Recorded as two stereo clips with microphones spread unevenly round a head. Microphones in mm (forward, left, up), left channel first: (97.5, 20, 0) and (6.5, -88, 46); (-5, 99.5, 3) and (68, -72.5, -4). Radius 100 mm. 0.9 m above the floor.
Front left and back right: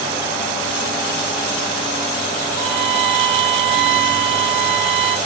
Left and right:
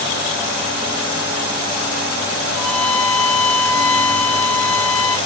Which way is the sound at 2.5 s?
160° right.